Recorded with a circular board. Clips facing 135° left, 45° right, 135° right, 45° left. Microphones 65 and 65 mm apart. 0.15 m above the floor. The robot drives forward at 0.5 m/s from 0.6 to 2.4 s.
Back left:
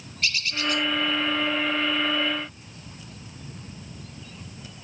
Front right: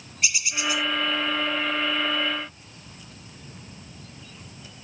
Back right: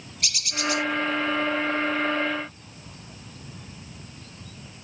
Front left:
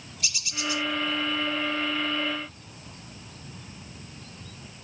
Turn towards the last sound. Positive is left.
turn(degrees=-160)